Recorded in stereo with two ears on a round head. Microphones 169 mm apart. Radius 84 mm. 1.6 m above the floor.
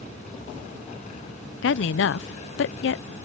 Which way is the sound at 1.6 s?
65° left (ahead or behind).